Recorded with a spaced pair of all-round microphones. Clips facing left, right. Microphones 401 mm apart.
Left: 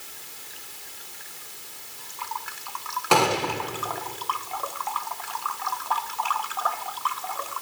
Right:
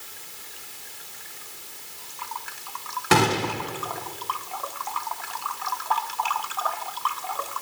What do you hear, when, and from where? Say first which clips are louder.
3.1 s a gunshot: right 1 dB; 30° right (ahead or behind), 0.7 m